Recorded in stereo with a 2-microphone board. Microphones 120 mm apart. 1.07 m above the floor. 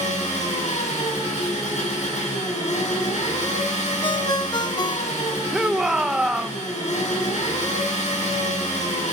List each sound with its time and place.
0.0 s an engine running: 75° left (ahead or behind), 7.5 m
4.0 s a ringtone: 40° left (ahead or behind), 0.7 m
5.5 s a shout: 5° right (ahead or behind), 0.6 m